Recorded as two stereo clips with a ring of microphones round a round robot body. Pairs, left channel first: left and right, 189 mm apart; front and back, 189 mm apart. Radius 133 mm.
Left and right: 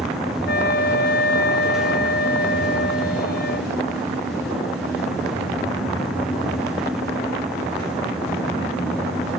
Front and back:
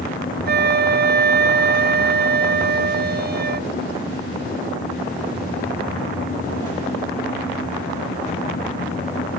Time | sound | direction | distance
0.5 | a flute | 150° left | ?